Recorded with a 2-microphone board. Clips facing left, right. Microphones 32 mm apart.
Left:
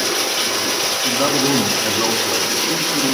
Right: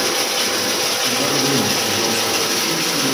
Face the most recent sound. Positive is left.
turn(degrees=15)  # may be behind; listen again after turning